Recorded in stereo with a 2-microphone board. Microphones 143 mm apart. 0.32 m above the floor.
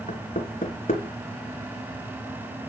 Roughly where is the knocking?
Left.